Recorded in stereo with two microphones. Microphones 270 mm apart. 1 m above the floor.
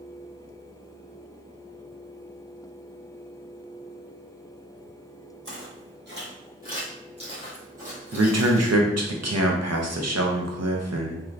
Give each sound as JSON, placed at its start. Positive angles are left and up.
{"t": 5.5, "sound": "footsteps", "side_deg": -55, "distance_m": 2.0}
{"t": 8.1, "sound": "a man speaking", "side_deg": -75, "distance_m": 0.6}